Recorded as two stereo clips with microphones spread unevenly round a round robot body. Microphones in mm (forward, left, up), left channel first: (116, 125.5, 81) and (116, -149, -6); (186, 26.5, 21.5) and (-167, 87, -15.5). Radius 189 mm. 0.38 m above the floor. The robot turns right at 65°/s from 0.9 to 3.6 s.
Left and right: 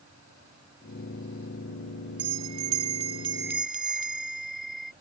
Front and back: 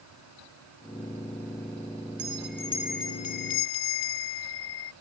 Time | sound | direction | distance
2.2 | a bell | 130° right | ?